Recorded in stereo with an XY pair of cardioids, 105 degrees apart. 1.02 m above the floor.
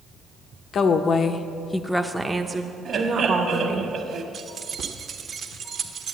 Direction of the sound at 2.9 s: 55° right.